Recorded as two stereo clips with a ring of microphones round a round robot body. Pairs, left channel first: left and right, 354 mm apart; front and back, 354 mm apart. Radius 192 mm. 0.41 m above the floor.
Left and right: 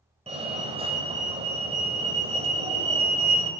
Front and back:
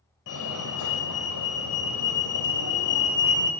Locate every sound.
0.3 s a fire alarm: 20° right, 3 m